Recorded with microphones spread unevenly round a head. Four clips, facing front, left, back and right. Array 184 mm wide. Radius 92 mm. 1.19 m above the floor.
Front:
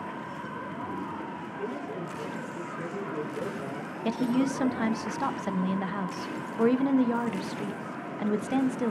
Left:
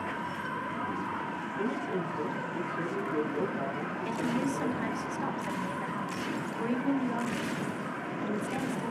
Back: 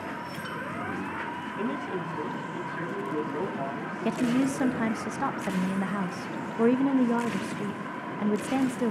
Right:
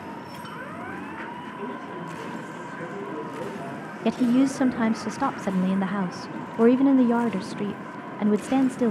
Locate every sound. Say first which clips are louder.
1.6 s a man speaking: left 4 dB, back 3 dB; 170° left, 7.5 m
4.0 s a woman speaking: right 11 dB, back 1 dB; 95° right, 0.7 m